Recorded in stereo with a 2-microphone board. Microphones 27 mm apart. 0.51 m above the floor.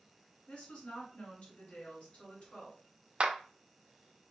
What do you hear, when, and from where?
0.5 s a woman speaking: 40° left (ahead or behind), 2.5 m
3.2 s a clap: 40° right (ahead or behind), 0.7 m